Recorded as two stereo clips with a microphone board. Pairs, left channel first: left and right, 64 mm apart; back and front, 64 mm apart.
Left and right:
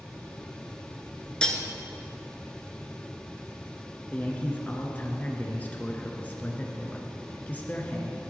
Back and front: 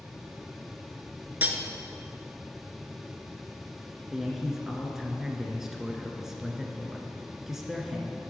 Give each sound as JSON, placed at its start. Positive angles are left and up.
{"t": 1.4, "sound": "cutlery clinking", "azimuth_deg": 25, "distance_m": 0.8}
{"t": 4.1, "sound": "a man speaking", "azimuth_deg": 75, "distance_m": 1.1}